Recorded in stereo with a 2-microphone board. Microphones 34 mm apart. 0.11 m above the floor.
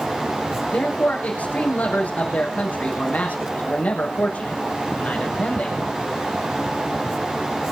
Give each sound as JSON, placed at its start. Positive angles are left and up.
{"t": 0.7, "sound": "a man speaking", "side_deg": 45, "distance_m": 5.5}